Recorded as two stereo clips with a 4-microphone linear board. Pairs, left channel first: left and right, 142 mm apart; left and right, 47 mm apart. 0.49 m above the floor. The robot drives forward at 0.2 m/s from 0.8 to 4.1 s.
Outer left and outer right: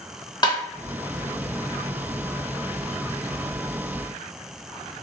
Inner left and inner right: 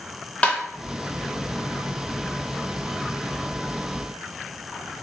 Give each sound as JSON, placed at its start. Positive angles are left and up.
{"t": 0.4, "sound": "tapping", "side_deg": 30, "distance_m": 0.6}